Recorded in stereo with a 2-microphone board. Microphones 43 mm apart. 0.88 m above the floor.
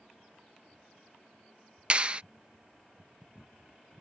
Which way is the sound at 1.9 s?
30° right (ahead or behind).